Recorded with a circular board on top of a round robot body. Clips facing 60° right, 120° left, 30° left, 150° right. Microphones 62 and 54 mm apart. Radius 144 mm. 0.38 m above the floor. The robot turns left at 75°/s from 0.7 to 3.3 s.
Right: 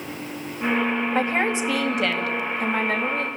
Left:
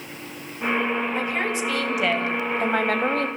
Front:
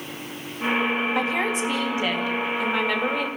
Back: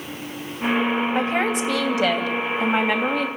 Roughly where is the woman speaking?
Right.